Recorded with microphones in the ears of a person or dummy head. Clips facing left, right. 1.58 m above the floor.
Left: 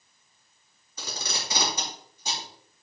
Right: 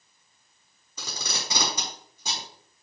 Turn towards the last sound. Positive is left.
turn(degrees=-70)  # may be behind; listen again after turning